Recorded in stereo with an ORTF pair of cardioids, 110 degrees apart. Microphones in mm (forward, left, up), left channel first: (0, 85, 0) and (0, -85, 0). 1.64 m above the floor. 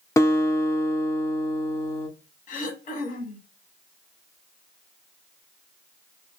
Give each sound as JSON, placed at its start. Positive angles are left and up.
{"t": 0.2, "sound": "a guitar", "azimuth_deg": 15, "distance_m": 0.6}
{"t": 2.5, "sound": "throat clearing", "azimuth_deg": 55, "distance_m": 0.9}